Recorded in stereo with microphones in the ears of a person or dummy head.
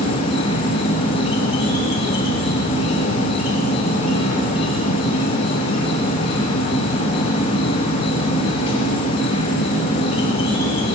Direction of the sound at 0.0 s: 30° left (ahead or behind).